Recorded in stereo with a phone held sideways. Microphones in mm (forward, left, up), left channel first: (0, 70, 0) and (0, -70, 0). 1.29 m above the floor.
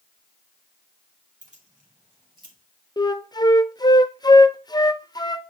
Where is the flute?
30° left (ahead or behind), 0.6 m.